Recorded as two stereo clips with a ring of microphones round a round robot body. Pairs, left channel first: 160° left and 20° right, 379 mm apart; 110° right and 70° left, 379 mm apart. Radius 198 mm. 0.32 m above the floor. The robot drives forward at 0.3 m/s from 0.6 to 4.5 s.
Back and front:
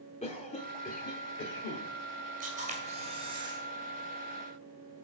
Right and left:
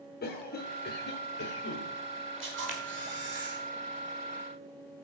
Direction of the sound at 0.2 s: 145° right.